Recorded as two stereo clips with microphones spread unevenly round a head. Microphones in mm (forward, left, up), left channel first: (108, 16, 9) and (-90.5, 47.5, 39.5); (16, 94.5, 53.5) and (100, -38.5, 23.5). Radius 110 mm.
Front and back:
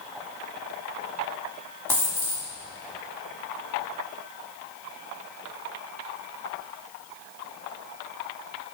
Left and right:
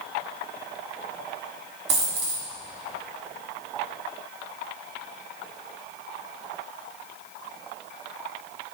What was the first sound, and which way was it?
A dropped coin, 95° right.